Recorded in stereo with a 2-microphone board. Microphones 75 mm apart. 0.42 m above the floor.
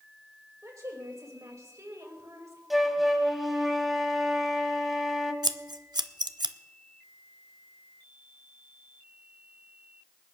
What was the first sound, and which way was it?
A woman speaking, 50° right (ahead or behind).